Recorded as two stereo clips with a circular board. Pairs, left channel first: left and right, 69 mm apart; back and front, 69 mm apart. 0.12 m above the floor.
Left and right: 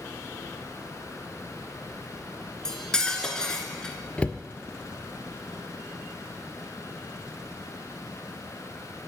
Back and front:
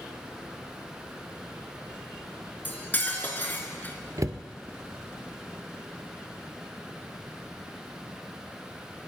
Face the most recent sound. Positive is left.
turn(degrees=25)